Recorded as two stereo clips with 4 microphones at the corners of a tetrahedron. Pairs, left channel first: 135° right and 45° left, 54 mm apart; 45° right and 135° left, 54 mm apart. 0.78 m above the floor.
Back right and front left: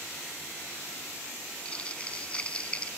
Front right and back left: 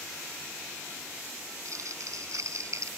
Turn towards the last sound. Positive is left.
turn(degrees=155)